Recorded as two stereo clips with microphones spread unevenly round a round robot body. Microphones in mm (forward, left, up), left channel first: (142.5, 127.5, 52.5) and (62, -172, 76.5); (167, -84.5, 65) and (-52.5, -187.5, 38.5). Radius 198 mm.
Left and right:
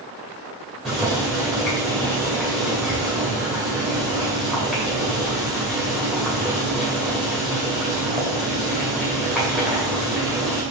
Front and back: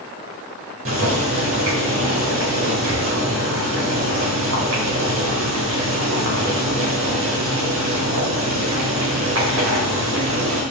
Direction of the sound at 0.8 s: 165° left.